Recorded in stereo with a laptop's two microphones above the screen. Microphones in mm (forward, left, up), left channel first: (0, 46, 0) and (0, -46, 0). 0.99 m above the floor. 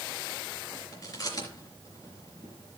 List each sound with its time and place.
0.9 s chewing: 40° left (ahead or behind), 4 m